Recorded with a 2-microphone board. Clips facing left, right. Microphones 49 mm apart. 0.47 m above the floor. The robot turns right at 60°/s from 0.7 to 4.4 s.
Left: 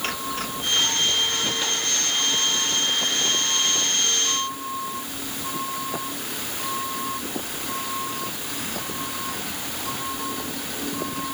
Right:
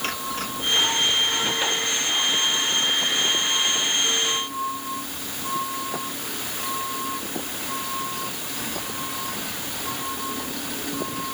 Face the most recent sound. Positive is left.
No sound to turn to.